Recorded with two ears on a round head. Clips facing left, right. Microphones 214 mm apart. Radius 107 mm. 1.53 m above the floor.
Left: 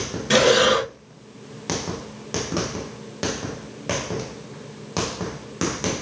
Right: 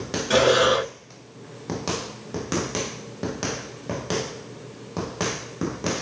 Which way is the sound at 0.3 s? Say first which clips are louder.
Left 2 dB; 30° left (ahead or behind).